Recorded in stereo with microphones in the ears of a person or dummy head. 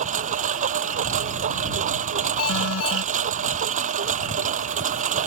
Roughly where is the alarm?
Left.